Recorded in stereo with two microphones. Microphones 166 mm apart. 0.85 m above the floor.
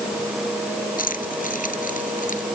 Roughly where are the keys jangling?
Left.